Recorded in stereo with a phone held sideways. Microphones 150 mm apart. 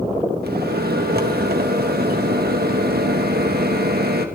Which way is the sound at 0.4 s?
85° right.